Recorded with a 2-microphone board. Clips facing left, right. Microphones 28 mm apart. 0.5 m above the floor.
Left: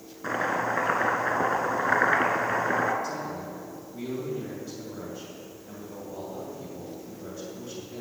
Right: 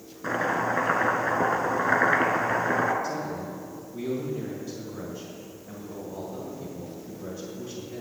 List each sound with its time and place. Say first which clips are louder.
0.2 s chopping: right 1 dB; centre (ahead or behind), 1.0 m
3.0 s a man speaking: right 2 dB; 5° right (ahead or behind), 2.5 m